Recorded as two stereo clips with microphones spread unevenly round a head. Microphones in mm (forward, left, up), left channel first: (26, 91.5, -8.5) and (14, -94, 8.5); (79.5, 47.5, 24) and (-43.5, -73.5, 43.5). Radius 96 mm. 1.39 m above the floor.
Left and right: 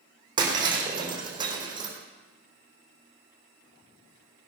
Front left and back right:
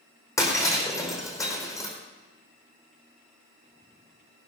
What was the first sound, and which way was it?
Breaking glass, 30° right.